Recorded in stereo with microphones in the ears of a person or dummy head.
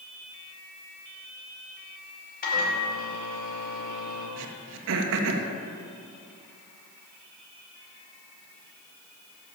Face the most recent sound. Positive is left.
turn(degrees=-65)  # may be behind; listen again after turning